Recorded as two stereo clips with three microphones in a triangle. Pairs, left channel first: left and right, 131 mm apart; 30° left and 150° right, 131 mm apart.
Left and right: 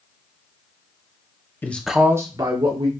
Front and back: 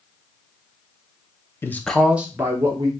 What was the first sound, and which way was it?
A man speaking, 55° left.